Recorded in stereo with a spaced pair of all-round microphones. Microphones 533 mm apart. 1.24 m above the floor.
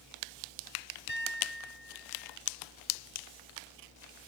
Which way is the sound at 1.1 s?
85° right.